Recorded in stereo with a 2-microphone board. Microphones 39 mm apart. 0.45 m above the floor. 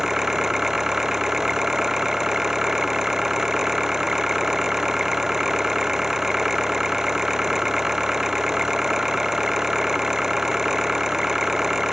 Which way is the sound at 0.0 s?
10° right (ahead or behind).